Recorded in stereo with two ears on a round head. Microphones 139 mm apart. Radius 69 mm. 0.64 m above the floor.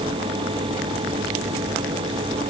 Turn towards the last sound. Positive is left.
No sound to turn to.